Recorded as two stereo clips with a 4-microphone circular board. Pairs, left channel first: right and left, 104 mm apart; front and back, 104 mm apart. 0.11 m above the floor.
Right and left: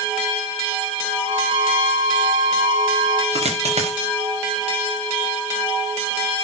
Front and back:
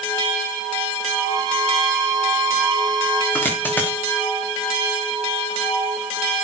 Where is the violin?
130° left, 3 m.